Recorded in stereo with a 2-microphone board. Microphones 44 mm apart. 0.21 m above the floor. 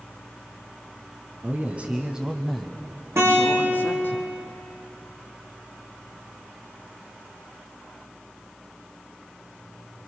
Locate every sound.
1.4 s a man speaking: 40° right (ahead or behind), 2 m; by 4.2 s 50° left (ahead or behind), 2.5 m
3.2 s a guitar: 80° right, 7.5 m